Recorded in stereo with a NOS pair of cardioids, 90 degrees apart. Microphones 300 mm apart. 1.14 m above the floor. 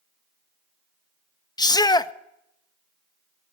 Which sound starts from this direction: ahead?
A shout, at 1.6 s.